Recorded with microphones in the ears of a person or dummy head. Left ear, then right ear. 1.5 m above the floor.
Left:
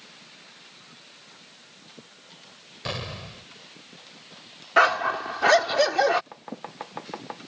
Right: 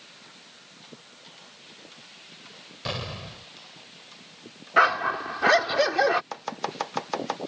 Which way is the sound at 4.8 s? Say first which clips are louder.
Left 1 dB; 15° left (ahead or behind).